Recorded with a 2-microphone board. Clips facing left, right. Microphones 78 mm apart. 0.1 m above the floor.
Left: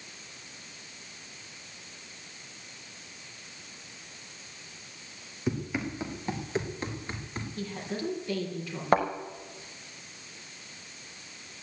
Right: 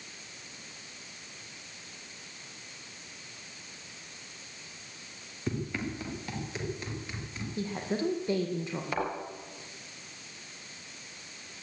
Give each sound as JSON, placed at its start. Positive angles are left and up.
{"t": 5.5, "sound": "running footsteps", "side_deg": 10, "distance_m": 3.5}
{"t": 7.6, "sound": "a woman speaking", "side_deg": -25, "distance_m": 3.5}
{"t": 8.9, "sound": "a thud", "side_deg": 50, "distance_m": 4.5}